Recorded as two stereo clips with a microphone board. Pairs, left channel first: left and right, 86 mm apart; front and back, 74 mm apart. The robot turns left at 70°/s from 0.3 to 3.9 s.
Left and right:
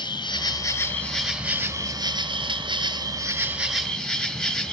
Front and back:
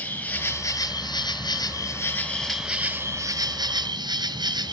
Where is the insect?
65° left, 1.2 m; by 4.7 s 170° left, 1.2 m.